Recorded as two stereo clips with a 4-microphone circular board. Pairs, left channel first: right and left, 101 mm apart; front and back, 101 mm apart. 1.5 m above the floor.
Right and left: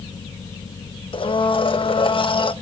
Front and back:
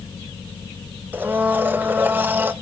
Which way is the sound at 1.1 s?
110° right.